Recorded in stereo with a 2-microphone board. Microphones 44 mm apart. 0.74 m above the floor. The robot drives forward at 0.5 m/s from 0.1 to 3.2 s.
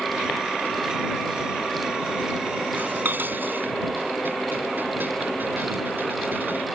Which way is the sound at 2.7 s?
45° right (ahead or behind).